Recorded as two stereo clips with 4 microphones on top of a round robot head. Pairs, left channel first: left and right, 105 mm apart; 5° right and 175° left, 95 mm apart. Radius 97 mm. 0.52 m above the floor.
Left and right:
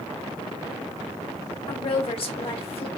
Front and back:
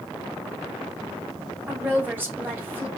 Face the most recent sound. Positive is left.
turn(degrees=110)